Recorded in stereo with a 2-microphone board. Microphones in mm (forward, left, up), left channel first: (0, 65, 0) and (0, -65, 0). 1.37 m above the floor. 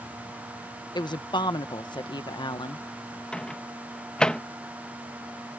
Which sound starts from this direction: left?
A woman speaking, at 0.9 s.